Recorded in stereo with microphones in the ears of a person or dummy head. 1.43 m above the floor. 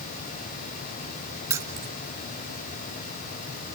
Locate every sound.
1.5 s keys jangling: 15° right (ahead or behind), 0.6 m